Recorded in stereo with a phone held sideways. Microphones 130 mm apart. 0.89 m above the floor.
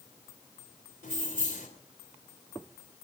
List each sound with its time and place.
1.0 s keys jangling: 75° left (ahead or behind), 3 m